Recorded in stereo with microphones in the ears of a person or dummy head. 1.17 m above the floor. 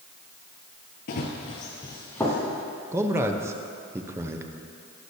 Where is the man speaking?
15° right (ahead or behind), 0.8 m.